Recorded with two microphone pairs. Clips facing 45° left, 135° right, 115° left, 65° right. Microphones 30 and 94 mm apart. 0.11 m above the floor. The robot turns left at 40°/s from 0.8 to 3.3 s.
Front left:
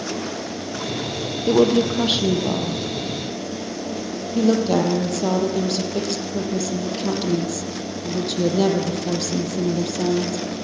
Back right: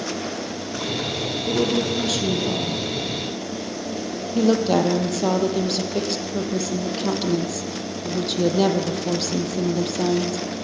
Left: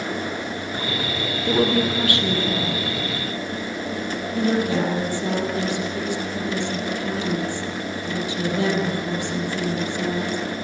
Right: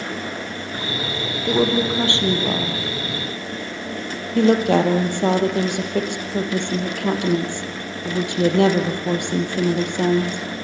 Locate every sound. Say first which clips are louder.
1.5 s a woman speaking: front left 6 dB, right 1 dB; 25° left, 3.5 m; by 10.4 s 50° right, 3.5 m